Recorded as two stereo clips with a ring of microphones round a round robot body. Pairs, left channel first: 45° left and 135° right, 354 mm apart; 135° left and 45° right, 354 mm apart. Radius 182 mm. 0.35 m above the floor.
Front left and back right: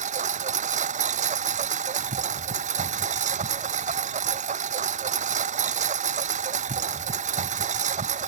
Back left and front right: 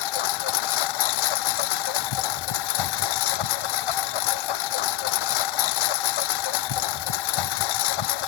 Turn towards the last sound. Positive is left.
turn(degrees=155)